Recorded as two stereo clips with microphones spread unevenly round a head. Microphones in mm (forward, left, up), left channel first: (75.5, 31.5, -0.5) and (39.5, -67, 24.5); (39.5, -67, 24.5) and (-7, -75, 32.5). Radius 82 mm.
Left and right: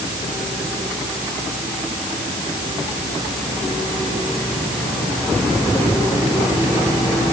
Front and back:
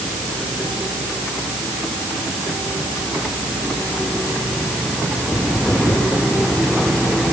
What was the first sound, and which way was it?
Only background noise.